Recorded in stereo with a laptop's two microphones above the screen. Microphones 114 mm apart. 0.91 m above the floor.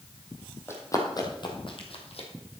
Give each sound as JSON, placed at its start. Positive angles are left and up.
{"t": 0.7, "sound": "running footsteps", "side_deg": 25, "distance_m": 2.5}